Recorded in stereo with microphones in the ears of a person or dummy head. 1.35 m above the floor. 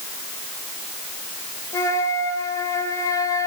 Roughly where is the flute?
Centre.